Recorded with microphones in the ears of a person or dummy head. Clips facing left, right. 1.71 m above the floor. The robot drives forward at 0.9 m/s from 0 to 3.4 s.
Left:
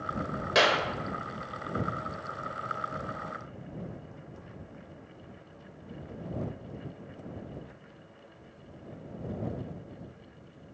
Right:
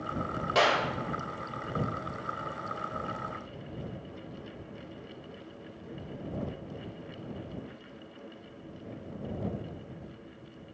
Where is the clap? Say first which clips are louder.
Left 1 dB; 20° left (ahead or behind), 1.9 m; by 0.8 s 25° left (ahead or behind), 1.7 m.